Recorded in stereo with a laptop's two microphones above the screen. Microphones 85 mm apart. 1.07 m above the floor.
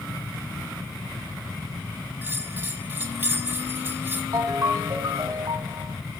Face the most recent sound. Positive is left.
turn(degrees=-45)  # may be behind; listen again after turning